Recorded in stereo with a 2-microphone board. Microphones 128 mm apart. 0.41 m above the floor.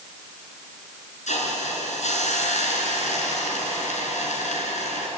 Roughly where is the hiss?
Left.